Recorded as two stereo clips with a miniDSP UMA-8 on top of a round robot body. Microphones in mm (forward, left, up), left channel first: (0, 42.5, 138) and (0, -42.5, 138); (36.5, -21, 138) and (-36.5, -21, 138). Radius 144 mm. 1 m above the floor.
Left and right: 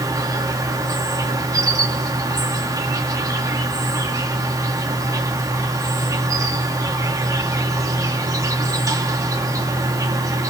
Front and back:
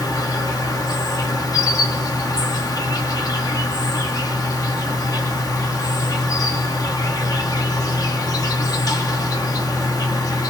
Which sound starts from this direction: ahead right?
An insect, at 0.0 s.